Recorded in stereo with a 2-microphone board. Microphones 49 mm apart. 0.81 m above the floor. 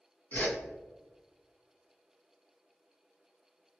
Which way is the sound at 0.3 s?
40° left (ahead or behind).